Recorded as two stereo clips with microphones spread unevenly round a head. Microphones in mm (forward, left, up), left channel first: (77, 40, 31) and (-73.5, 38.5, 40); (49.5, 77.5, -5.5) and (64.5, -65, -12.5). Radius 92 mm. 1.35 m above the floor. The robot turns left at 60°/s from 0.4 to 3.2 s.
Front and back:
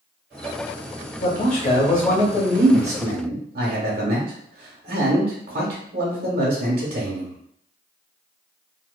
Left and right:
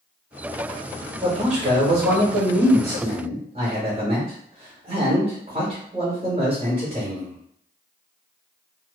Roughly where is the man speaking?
Ahead right.